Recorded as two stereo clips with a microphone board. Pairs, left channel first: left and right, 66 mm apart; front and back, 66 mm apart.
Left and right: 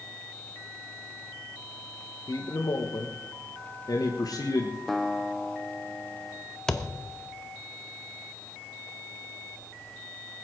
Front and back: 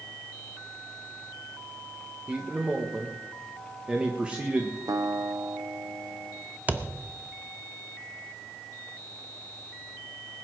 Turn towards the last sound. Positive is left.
turn(degrees=160)